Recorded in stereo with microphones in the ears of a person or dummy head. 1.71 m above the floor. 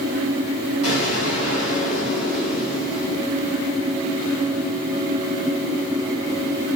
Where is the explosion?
70° left (ahead or behind), 1.7 m.